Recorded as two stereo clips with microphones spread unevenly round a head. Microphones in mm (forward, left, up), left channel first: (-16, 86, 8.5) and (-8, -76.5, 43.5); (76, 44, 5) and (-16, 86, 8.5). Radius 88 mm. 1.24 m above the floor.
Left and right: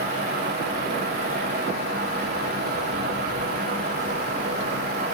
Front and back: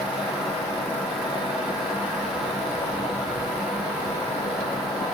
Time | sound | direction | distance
0.0 | a fan | 120° right | 4.5 m